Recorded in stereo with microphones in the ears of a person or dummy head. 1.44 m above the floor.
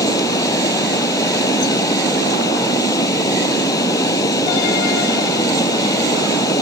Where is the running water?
20° left (ahead or behind).